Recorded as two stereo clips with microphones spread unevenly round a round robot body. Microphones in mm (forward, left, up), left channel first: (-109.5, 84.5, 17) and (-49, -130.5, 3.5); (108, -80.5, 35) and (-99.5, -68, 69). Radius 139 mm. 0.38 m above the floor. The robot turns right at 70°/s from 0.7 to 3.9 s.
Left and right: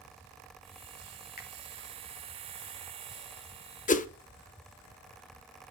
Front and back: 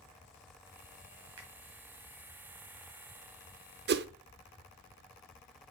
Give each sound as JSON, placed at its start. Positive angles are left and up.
{"t": 1.4, "sound": "a finger snap", "azimuth_deg": 150, "distance_m": 2.0}
{"t": 3.9, "sound": "a whoosh", "azimuth_deg": 150, "distance_m": 0.5}